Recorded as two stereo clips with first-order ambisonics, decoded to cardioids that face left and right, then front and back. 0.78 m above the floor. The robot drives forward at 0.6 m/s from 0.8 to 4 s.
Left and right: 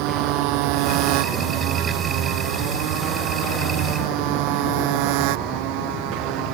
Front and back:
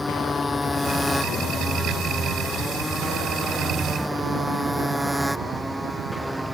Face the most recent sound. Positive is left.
turn(degrees=-95)